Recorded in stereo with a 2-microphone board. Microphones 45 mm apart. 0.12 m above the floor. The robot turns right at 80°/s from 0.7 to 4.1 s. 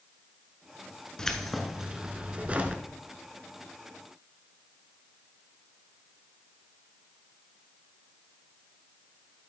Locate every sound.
1.2 s keys jangling: 155° left, 0.9 m; by 2.8 s 75° right, 0.9 m